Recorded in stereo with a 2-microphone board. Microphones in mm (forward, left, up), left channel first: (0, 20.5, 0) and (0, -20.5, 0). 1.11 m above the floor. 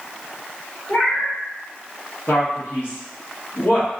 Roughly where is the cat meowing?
Left.